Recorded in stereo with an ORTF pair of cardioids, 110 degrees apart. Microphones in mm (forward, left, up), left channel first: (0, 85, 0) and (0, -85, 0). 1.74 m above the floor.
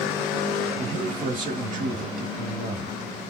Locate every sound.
0.8 s a man speaking: 45° right, 2.5 m